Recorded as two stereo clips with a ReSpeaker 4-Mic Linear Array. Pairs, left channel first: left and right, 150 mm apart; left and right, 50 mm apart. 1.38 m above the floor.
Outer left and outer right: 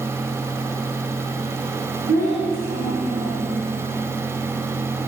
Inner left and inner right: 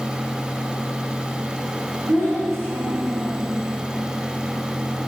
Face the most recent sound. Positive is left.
turn(degrees=-85)